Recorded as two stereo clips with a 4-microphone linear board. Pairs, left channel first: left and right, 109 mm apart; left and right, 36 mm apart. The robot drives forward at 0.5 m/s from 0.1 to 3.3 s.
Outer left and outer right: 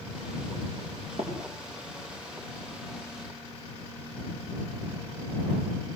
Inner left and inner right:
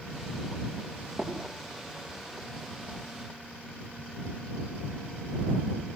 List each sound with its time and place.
1.2 s tapping: 70° right (ahead or behind), 6.5 m